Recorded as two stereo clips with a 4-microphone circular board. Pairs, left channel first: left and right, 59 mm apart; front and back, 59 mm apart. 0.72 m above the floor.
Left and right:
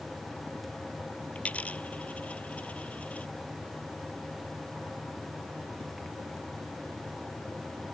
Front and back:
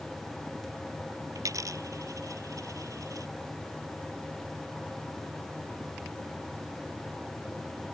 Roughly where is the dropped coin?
Behind.